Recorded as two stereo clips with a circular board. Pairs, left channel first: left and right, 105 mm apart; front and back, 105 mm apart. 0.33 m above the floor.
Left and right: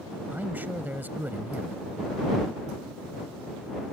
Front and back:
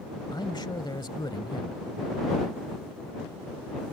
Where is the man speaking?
25° right.